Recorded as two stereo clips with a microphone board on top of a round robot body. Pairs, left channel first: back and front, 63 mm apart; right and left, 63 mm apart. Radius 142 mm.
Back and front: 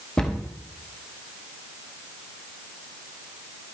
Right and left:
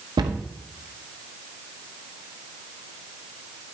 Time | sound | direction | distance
0.2 | a cupboard door | 100° left | 0.9 m